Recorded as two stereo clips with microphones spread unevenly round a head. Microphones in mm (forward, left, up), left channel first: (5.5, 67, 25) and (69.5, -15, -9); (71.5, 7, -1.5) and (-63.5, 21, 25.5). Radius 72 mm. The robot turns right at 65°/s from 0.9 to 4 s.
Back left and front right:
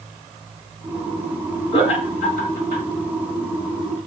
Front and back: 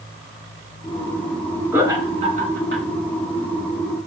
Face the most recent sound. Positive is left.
turn(degrees=-115)